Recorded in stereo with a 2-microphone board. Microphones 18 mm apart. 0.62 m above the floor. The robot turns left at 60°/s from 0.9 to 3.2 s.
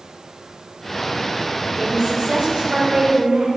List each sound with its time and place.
1.8 s a woman speaking: 35° right, 3 m; by 3.5 s 120° right, 3 m